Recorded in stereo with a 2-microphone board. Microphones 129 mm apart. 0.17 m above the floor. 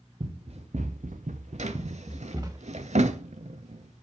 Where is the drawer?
65° right (ahead or behind), 0.6 m.